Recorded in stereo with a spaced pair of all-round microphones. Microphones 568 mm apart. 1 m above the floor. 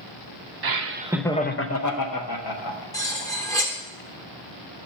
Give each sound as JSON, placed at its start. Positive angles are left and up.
{"t": 0.6, "sound": "laughter", "side_deg": -45, "distance_m": 0.5}
{"t": 2.9, "sound": "cutlery clinking", "side_deg": 5, "distance_m": 1.4}